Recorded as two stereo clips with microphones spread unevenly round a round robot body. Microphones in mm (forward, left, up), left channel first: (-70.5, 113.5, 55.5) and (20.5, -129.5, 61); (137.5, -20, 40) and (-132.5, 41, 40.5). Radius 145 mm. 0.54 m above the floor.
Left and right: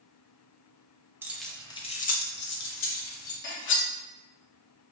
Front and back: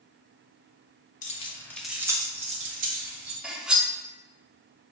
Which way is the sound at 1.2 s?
5° left.